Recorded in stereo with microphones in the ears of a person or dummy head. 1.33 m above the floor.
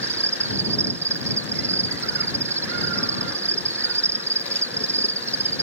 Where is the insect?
10° right (ahead or behind).